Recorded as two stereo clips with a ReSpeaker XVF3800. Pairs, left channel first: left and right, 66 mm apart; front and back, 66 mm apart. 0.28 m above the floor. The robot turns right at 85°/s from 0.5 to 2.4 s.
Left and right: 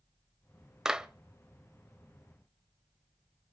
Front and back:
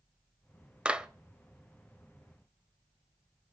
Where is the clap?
155° right, 1.1 m; by 1.1 s 135° right, 1.1 m.